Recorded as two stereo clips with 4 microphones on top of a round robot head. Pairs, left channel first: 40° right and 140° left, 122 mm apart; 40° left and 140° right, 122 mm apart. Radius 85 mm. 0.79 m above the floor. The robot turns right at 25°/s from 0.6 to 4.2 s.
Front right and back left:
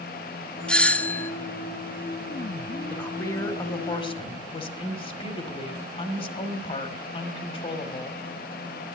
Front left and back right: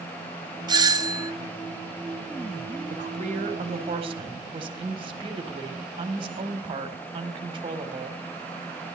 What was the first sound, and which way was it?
A doorbell, 120° right.